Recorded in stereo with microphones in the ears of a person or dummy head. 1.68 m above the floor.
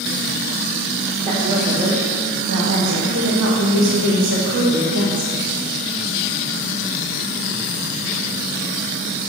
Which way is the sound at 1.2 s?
25° right (ahead or behind).